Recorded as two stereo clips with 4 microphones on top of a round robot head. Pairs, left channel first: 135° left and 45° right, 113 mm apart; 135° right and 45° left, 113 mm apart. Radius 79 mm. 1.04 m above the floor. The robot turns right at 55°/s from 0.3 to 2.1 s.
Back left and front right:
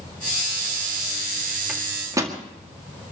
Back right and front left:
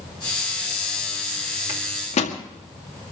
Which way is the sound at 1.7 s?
135° right.